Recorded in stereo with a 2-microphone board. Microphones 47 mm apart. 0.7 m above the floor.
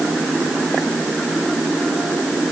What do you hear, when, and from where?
Only background noise.